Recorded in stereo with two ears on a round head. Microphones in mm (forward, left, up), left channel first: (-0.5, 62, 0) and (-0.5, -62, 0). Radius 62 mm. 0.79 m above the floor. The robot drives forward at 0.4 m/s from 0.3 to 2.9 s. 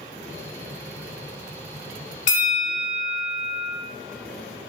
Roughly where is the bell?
Left.